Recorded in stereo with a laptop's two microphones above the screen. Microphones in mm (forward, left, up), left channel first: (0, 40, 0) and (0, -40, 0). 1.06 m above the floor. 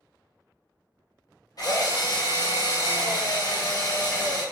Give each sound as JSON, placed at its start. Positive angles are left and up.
{"t": 1.6, "sound": "a drill", "side_deg": 50, "distance_m": 0.9}